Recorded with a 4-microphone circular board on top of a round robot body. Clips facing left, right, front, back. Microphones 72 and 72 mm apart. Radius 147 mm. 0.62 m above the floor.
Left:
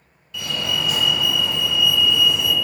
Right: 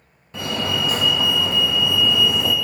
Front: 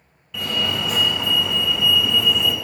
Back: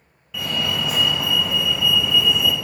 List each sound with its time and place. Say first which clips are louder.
0.3 s a fire alarm: right 2 dB, even; 95° right, 2 m